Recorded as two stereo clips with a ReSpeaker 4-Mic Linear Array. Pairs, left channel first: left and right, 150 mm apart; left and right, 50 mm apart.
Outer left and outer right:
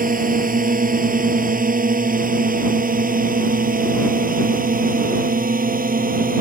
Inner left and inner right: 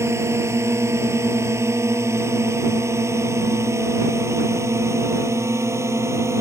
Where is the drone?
65° right (ahead or behind); by 6.4 s 70° right (ahead or behind).